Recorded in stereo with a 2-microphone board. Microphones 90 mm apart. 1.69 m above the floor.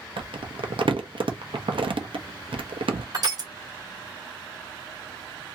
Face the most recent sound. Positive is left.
turn(degrees=-50)  # may be behind; listen again after turning